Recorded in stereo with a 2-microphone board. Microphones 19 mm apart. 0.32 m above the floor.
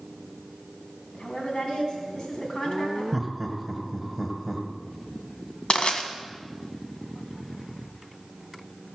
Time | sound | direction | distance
1.1 | a woman speaking | 50° left (ahead or behind) | 3 m
3.1 | laughter | centre (ahead or behind) | 1.9 m
5.7 | crushing | 60° left (ahead or behind) | 1.7 m